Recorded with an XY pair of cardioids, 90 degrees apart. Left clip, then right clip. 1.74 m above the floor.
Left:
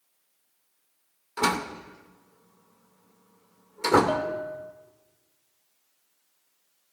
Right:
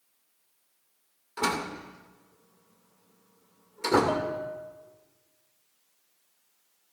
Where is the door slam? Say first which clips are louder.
Left 3 dB; 30° left, 2 m.